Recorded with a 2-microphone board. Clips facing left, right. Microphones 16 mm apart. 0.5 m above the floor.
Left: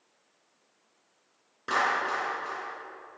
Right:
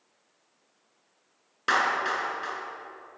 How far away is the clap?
About 7 m.